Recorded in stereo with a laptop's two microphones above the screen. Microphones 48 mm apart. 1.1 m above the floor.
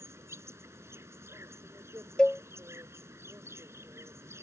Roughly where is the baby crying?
I don't hear a baby crying.